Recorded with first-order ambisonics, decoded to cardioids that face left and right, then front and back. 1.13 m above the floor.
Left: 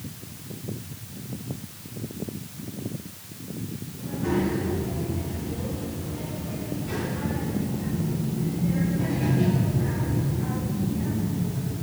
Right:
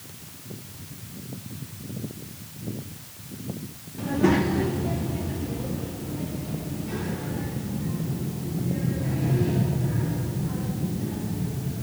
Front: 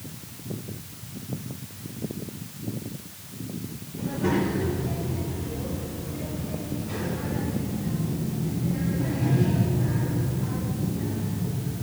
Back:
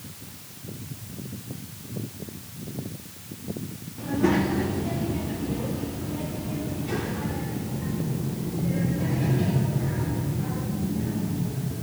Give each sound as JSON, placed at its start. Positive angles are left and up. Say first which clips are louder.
{"t": 4.0, "sound": "a child speaking", "louder": "right 5 dB, back 2 dB", "azimuth_deg": -110, "distance_m": 1.7}